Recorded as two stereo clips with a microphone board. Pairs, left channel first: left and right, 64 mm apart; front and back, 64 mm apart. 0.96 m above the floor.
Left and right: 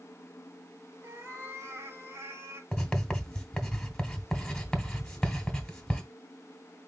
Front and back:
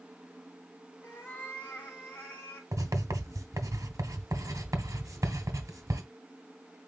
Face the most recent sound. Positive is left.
turn(degrees=170)